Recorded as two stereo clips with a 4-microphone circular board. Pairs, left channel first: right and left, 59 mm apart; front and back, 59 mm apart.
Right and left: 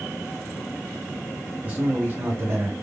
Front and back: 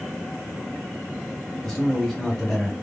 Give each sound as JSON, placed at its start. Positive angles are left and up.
{"t": 1.6, "sound": "a man speaking", "azimuth_deg": 75, "distance_m": 0.9}